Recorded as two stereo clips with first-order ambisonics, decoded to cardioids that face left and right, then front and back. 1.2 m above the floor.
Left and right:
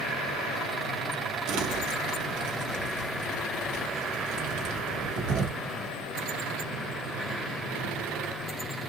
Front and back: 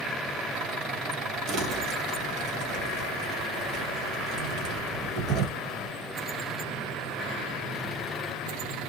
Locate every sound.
1.5 s crumpling: 130° right, 1.2 m